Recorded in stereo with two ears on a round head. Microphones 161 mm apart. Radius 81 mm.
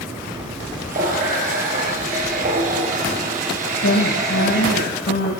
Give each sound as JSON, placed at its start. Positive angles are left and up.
{"t": 0.9, "sound": "a running tap", "side_deg": -40, "distance_m": 6.0}
{"t": 3.8, "sound": "a woman speaking", "side_deg": 60, "distance_m": 3.0}